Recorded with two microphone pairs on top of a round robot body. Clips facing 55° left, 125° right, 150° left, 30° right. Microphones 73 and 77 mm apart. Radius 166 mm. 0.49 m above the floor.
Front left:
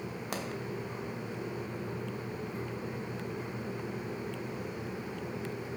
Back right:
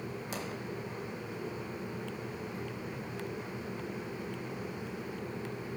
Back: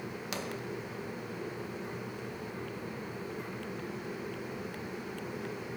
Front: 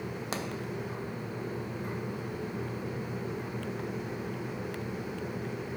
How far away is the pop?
About 1.1 m.